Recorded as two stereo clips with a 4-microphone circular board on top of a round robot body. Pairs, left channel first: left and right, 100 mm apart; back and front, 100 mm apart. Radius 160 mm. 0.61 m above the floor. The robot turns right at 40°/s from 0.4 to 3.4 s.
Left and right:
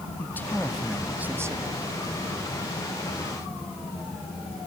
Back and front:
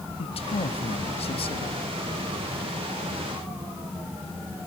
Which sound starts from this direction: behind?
A man speaking, at 0.2 s.